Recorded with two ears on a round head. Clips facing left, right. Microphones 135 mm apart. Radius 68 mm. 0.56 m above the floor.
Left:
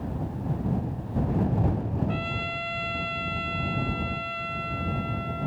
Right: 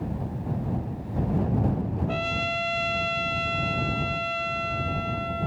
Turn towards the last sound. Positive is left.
turn(degrees=-50)  # may be behind; listen again after turning